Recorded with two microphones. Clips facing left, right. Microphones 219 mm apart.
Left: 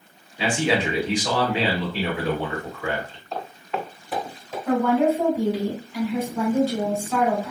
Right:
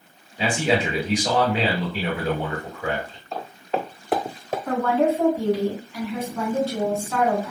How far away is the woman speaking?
About 1.7 m.